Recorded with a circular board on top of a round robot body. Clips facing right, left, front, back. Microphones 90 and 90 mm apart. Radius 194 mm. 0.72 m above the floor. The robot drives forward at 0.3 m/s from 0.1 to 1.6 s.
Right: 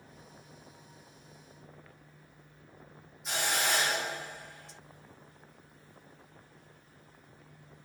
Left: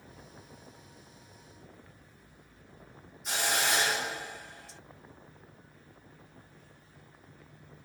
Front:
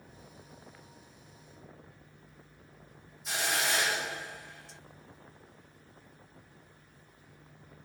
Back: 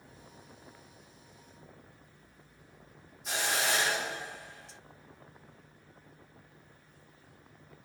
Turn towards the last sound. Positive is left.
turn(degrees=180)